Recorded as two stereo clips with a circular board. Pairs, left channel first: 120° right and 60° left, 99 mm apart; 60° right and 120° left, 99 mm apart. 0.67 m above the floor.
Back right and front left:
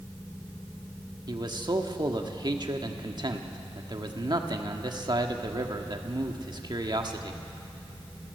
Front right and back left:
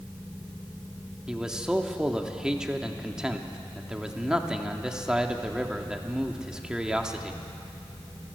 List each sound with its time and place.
1.3 s a man speaking: 40° left, 1.4 m